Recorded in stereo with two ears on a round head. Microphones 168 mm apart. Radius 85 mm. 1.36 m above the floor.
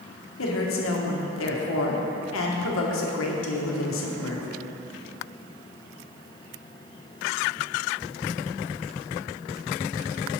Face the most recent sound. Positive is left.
turn(degrees=75)  # may be behind; listen again after turning